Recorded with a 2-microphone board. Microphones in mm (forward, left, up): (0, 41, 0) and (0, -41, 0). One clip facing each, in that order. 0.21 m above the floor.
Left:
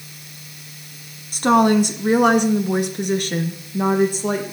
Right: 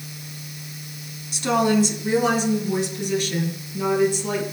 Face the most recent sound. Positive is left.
turn(degrees=45)  # may be behind; listen again after turning